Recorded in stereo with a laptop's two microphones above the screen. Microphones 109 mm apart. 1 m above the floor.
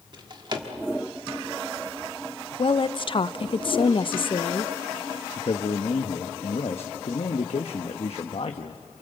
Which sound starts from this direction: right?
A drawer, at 0.1 s.